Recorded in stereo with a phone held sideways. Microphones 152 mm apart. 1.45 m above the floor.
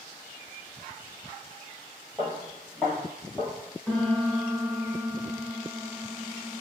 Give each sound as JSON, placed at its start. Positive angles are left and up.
{"t": 2.2, "sound": "footsteps", "side_deg": 0, "distance_m": 1.5}
{"t": 3.9, "sound": "a piano", "side_deg": 5, "distance_m": 0.9}